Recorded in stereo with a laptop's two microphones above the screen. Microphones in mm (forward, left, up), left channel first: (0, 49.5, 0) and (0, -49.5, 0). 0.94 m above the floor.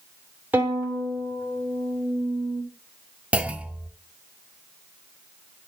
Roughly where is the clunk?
Centre.